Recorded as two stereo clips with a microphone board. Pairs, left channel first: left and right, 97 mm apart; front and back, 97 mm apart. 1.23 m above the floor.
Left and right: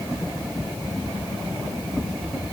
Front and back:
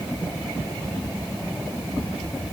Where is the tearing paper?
I don't hear tearing paper.